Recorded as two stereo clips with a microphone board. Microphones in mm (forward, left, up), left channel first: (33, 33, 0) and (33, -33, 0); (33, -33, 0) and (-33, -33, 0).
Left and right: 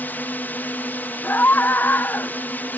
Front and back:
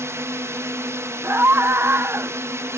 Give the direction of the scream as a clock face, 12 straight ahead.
7 o'clock.